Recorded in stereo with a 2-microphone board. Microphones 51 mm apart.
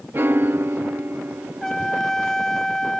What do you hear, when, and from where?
0.1 s a piano: 45° right (ahead or behind)
1.6 s a trumpet: 10° left (ahead or behind)